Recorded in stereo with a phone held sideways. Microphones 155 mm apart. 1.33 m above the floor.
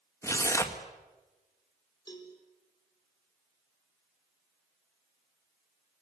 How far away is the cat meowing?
No cat meowing in this recording.